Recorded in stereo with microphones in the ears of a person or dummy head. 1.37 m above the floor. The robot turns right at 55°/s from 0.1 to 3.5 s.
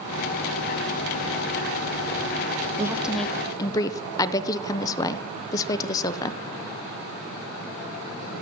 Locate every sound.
2.8 s a woman speaking: 20° right, 0.5 m; by 6.4 s 20° left, 0.5 m